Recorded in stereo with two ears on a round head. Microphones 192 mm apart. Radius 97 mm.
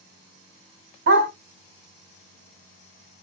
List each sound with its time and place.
1.1 s a dog barking: 55° right (ahead or behind), 3 m